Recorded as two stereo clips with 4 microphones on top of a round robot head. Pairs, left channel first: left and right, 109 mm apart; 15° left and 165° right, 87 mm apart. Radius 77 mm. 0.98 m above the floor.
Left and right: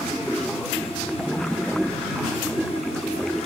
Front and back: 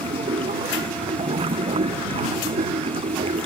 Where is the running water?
175° left.